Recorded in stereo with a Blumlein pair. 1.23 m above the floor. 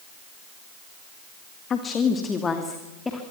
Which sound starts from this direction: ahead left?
A woman speaking, at 1.7 s.